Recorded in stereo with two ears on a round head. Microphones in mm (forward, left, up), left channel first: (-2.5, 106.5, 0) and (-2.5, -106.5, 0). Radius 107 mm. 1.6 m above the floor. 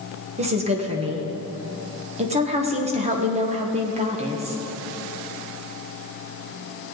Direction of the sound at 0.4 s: 25° right (ahead or behind).